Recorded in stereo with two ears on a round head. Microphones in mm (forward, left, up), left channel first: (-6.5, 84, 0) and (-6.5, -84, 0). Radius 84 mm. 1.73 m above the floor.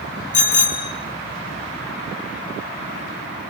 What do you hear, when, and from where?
0.3 s a bicycle bell: 45° left (ahead or behind), 3.5 m